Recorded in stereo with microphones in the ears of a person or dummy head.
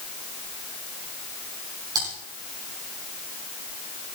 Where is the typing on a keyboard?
20° right (ahead or behind), 8.5 m.